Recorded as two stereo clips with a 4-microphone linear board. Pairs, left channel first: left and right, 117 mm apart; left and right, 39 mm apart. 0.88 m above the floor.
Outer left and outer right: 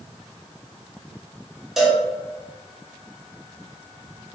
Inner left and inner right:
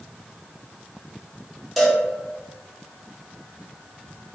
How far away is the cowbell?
About 0.8 m.